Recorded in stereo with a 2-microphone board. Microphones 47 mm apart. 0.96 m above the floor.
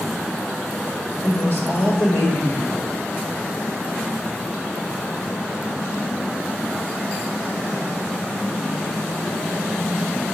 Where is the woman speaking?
85° left, 2.5 m.